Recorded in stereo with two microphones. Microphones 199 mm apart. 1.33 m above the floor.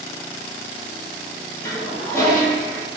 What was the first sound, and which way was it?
A toilet flushing, 15° left (ahead or behind).